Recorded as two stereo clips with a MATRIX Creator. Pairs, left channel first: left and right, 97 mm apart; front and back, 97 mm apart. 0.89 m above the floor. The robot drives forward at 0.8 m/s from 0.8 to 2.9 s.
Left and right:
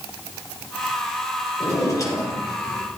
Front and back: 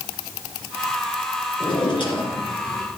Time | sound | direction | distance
1.6 | a drawer | 30° left | 5 m